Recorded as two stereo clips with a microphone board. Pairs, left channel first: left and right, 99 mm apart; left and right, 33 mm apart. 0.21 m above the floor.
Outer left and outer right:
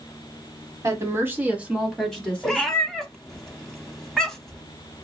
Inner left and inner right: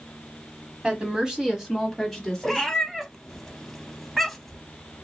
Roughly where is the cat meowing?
Centre.